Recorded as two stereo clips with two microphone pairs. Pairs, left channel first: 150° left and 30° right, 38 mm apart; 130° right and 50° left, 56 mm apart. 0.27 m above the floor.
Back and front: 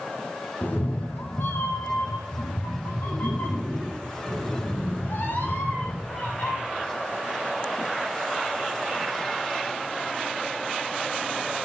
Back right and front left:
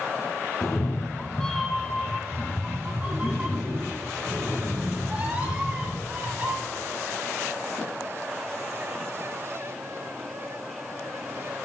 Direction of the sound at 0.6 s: 160° right.